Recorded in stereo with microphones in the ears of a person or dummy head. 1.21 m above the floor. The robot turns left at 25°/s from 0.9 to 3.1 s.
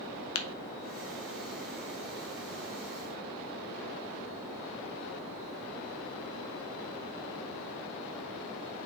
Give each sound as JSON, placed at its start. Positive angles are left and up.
{"t": 0.3, "sound": "tapping", "side_deg": 80, "distance_m": 0.7}